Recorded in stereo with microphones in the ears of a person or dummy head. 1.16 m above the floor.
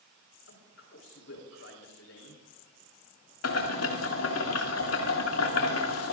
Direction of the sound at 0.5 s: 70° left (ahead or behind).